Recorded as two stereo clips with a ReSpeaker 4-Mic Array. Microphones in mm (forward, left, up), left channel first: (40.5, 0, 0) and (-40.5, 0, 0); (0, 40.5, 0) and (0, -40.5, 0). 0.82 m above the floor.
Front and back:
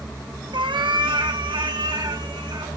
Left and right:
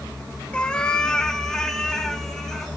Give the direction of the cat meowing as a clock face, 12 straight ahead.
6 o'clock.